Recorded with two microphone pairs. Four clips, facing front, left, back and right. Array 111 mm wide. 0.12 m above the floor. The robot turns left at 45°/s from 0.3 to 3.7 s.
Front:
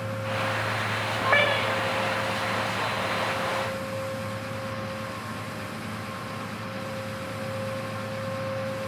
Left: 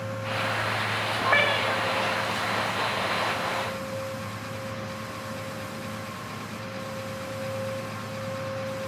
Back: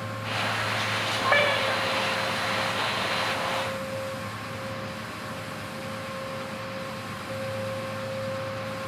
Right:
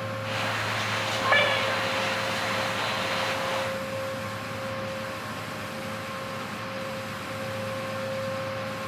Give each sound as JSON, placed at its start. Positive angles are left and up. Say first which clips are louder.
{"t": 1.2, "sound": "a cat meowing", "louder": "even, even", "azimuth_deg": -135, "distance_m": 4.0}